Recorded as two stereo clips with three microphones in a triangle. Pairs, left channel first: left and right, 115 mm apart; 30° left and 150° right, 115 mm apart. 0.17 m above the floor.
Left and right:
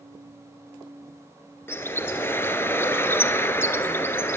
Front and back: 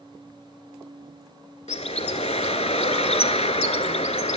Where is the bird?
25° left, 0.7 m.